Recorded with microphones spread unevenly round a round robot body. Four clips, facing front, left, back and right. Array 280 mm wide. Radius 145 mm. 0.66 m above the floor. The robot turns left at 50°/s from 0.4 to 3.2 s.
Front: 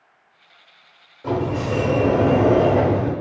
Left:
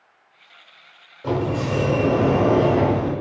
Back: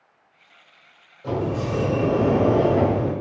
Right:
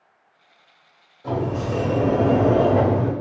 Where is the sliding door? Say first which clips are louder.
Left 2 dB, front 3 dB; 45° left, 1.8 m; by 3.1 s 50° right, 1.8 m.